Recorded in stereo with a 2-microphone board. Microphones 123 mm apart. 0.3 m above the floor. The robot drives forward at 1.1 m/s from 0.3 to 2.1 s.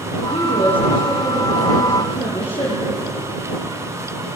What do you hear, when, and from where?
0.2 s a woman speaking: 50° left (ahead or behind), 7.5 m; by 3.1 s 65° left (ahead or behind), 6.5 m